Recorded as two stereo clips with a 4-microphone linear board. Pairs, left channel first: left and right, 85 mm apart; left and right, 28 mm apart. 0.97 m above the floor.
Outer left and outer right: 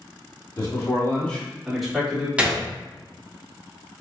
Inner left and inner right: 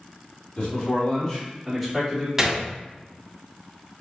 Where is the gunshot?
15° right (ahead or behind), 0.5 m.